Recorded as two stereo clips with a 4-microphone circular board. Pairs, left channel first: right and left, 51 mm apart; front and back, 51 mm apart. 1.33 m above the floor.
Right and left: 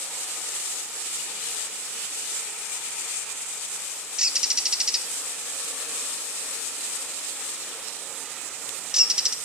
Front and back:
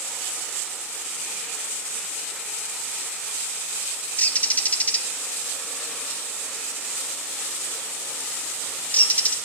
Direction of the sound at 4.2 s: 25° left.